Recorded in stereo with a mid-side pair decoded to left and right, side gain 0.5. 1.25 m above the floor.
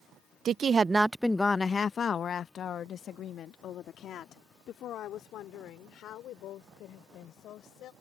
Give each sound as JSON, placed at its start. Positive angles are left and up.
{"t": 0.5, "sound": "a woman speaking", "azimuth_deg": -55}